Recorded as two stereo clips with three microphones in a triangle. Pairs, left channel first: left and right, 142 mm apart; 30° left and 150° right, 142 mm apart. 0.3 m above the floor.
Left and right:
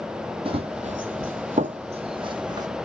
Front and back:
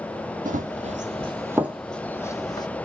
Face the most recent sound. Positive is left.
turn(degrees=-30)